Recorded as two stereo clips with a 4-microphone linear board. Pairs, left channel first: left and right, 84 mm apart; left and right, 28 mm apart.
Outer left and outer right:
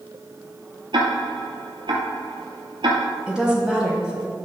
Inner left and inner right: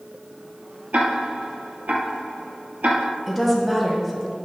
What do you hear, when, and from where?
0.9 s ticking: 70° right (ahead or behind), 1.1 m
3.3 s a woman speaking: 10° right (ahead or behind), 1.3 m